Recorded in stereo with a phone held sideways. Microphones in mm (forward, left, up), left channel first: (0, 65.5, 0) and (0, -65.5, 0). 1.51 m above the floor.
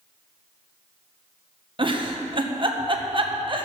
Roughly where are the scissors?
No scissors in this recording.